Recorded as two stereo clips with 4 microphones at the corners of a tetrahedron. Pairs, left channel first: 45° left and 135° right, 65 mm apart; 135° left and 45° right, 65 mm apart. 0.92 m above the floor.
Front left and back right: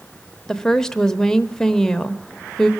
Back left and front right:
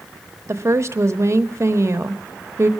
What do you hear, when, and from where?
0.5 s a woman speaking: 35° right, 0.7 m